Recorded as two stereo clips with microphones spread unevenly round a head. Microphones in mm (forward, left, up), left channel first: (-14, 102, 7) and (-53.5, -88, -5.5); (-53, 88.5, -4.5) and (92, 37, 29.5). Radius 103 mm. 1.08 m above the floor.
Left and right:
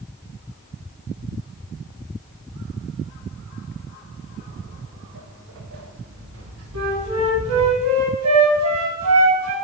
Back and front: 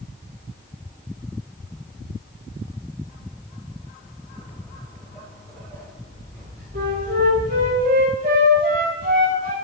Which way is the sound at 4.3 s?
125° right.